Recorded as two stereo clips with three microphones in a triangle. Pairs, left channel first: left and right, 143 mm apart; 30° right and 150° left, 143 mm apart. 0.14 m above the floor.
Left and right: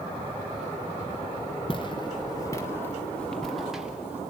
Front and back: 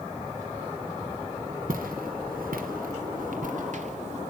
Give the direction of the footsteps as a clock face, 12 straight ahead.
7 o'clock.